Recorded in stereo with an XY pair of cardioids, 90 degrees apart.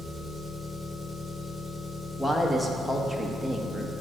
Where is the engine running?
25° left, 2.5 m.